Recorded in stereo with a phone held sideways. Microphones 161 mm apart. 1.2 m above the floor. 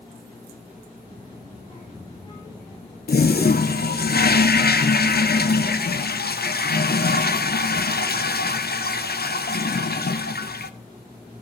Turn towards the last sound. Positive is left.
turn(degrees=75)  # may be behind; listen again after turning